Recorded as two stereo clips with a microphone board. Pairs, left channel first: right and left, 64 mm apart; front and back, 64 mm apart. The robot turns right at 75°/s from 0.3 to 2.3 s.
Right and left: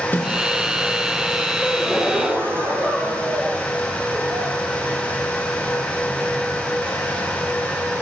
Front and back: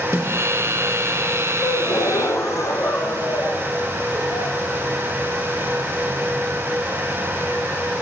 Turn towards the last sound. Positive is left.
turn(degrees=35)